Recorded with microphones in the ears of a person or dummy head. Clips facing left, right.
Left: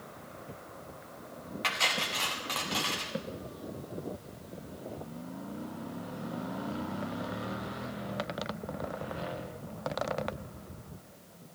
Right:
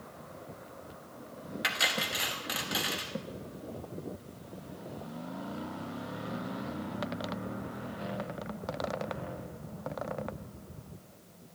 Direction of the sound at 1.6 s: 10° right (ahead or behind).